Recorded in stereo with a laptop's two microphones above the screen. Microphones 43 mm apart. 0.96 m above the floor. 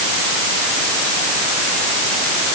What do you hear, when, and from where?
Only background noise.